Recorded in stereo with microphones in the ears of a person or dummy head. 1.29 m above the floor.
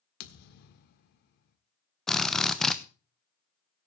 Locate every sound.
0.2 s a thud: 60° left (ahead or behind), 1.4 m
2.1 s a drill: centre (ahead or behind), 0.9 m